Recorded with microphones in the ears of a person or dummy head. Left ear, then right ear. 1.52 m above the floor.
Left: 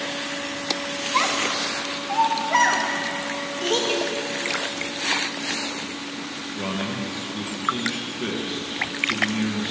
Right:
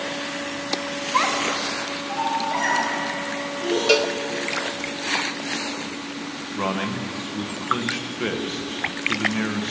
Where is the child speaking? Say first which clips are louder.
Right 1 dB; 5° right (ahead or behind), 1.5 m; by 3.8 s 50° left (ahead or behind), 3.5 m.